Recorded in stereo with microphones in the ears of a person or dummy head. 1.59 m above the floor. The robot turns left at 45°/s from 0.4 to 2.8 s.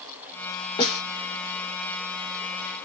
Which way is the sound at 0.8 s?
30° left (ahead or behind).